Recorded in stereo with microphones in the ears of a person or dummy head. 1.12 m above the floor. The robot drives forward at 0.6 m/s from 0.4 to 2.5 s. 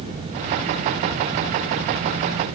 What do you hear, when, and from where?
Only background noise.